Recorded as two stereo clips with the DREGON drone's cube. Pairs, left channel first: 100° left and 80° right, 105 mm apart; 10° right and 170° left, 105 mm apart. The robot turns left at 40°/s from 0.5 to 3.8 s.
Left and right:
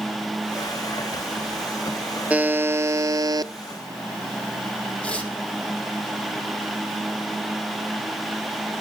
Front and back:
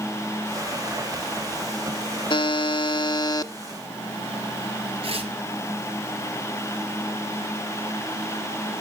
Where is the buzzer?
5° right, 0.5 m; by 3.5 s 55° right, 0.5 m.